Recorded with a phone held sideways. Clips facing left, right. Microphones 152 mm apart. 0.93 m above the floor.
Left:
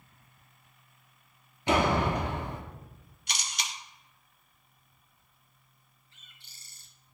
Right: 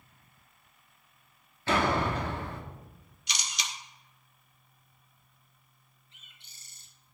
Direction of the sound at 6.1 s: 20° right (ahead or behind).